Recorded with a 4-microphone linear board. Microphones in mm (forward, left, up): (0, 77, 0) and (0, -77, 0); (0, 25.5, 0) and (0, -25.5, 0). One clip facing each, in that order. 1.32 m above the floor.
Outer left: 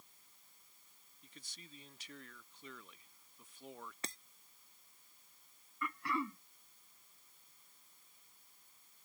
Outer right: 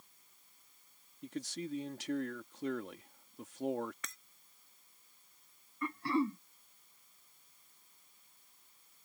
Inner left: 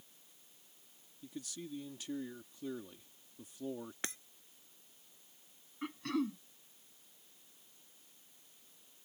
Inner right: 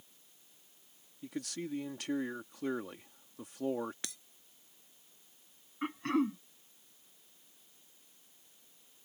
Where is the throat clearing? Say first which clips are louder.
Outer right 7 dB, inner right 5 dB; 35° right (ahead or behind).